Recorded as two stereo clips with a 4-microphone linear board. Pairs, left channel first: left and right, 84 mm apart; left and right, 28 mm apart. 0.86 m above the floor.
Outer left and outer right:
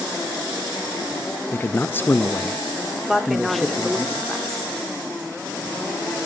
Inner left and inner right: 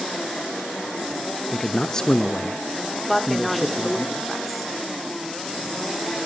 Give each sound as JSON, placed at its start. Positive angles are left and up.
{"t": 1.5, "sound": "a man speaking", "side_deg": 25, "distance_m": 0.6}
{"t": 3.1, "sound": "a woman speaking", "side_deg": -5, "distance_m": 2.0}